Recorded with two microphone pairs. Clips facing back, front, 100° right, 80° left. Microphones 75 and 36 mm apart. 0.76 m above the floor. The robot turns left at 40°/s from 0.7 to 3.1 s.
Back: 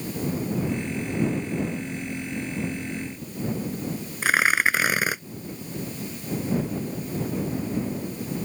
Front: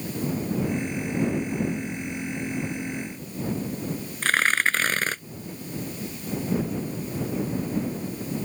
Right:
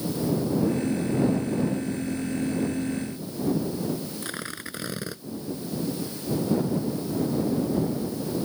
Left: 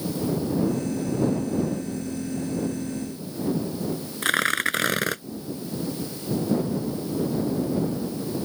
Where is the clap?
No clap in this recording.